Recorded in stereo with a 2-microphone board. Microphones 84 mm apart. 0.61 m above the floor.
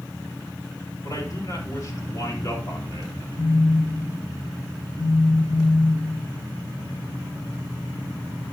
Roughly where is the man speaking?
Left.